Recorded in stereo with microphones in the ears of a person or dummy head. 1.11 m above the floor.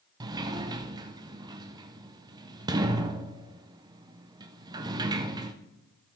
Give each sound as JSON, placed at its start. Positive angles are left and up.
{"t": 0.2, "sound": "a sliding door", "side_deg": -20, "distance_m": 0.5}